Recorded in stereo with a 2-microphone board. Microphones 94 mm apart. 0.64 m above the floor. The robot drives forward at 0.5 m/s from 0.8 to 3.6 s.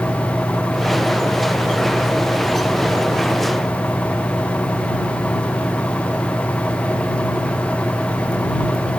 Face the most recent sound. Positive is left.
No sound to turn to.